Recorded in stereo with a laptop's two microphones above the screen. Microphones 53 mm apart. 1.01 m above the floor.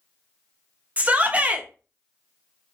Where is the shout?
30° right (ahead or behind), 0.6 m.